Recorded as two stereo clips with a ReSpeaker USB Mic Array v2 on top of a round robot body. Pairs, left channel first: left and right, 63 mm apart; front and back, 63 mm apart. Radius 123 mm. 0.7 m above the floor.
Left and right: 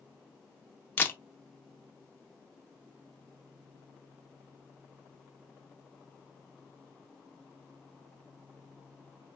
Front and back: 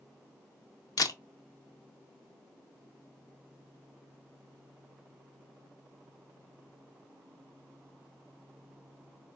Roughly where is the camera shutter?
Ahead left.